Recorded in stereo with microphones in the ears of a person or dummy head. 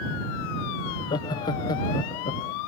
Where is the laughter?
20° left (ahead or behind).